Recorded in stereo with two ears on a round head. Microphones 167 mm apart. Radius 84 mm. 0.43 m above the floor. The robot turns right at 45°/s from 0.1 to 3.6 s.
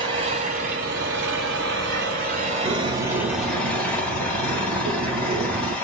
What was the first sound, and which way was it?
An engine running, 155° right.